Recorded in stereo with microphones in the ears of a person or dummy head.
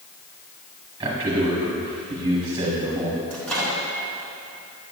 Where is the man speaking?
20° right (ahead or behind), 1.2 m.